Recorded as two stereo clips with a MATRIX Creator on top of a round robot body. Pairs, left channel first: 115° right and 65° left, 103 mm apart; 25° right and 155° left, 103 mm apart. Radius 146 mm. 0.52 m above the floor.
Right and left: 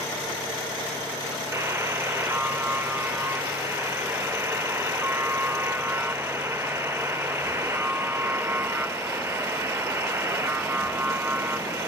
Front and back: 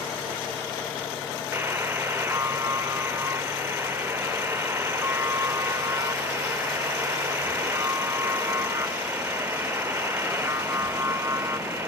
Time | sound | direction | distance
1.5 | a buzzer | 110° left | 0.8 m